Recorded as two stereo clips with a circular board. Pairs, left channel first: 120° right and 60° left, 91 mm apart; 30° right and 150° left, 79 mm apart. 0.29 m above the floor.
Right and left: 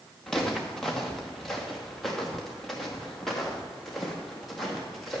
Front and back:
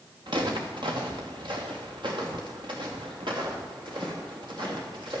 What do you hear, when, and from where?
0.3 s footsteps: 155° left, 2.5 m; by 5.2 s 150° left, 5 m